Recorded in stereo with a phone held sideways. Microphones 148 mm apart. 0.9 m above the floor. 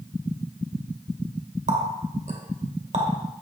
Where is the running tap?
55° right (ahead or behind), 2.0 m.